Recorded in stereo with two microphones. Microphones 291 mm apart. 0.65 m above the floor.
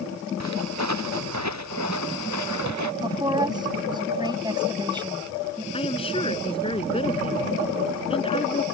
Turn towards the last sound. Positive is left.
turn(degrees=20)  # may be behind; listen again after turning